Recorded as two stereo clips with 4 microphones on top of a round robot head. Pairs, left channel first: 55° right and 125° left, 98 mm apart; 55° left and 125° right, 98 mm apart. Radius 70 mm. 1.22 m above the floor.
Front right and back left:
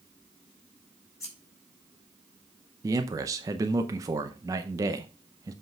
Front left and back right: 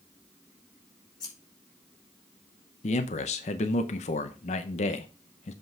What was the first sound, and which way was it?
Scissors, 5° left.